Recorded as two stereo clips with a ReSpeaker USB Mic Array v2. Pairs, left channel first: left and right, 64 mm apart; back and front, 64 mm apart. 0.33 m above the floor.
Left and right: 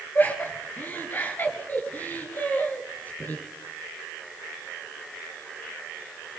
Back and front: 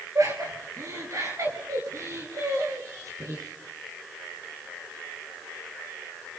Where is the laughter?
30° left, 6 m.